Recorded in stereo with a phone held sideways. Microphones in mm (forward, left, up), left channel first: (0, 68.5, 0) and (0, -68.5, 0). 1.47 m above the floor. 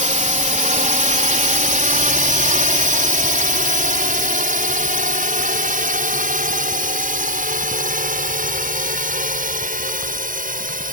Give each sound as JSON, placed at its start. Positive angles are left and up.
{"t": 0.0, "sound": "a drone", "side_deg": -60}